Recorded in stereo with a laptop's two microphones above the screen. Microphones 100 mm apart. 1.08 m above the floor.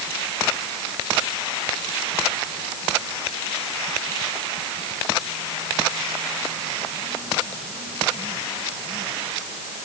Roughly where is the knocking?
No knocking in this recording.